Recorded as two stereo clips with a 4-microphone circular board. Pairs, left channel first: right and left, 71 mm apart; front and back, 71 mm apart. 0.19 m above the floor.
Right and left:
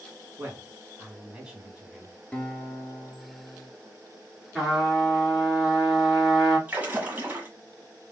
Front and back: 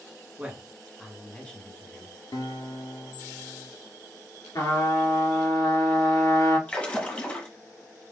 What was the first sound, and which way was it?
A man speaking, 130° left.